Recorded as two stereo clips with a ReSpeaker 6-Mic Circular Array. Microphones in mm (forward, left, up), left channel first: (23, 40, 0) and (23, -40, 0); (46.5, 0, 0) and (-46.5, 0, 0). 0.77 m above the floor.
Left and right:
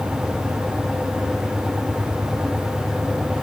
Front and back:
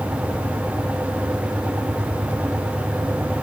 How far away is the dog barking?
No dog barking in this recording.